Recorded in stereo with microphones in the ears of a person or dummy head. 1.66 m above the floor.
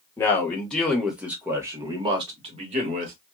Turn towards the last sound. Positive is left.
turn(degrees=-40)  # may be behind; listen again after turning